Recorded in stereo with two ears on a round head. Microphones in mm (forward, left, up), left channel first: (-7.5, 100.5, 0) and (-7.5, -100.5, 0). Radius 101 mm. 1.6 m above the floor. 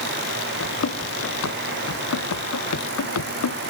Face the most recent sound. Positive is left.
turn(degrees=75)  # may be behind; listen again after turning